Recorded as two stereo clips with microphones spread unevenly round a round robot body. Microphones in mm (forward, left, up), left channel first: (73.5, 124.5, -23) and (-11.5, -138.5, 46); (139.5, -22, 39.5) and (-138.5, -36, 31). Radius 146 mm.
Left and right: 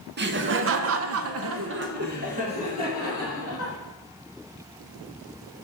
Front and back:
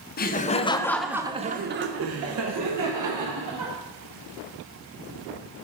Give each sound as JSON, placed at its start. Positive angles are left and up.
{"t": 0.2, "sound": "laughter", "azimuth_deg": -50, "distance_m": 0.8}